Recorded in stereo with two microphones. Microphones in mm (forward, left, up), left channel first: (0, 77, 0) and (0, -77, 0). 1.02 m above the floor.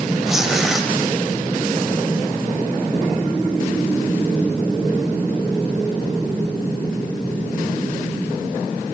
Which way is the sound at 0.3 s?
5° right (ahead or behind).